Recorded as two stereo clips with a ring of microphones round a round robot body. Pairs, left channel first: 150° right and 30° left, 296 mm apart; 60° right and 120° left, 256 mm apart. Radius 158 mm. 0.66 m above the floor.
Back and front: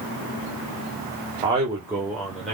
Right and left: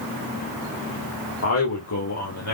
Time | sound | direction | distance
1.4 | a man speaking | 45° right | 3 m